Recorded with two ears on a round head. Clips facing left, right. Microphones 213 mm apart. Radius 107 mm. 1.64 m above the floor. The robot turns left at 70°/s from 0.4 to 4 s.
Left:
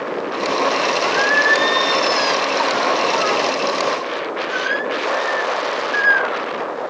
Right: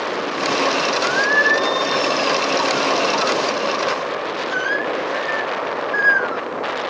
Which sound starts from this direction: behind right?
Singing, at 1.0 s.